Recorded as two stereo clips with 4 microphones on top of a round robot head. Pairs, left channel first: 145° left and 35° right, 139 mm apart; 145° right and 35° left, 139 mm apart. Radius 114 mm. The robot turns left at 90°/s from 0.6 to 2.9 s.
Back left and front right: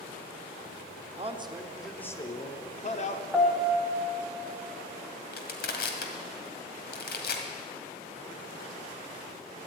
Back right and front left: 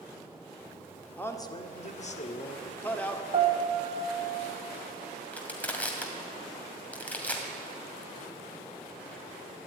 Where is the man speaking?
65° right, 1.6 m; by 3.2 s 140° left, 1.6 m.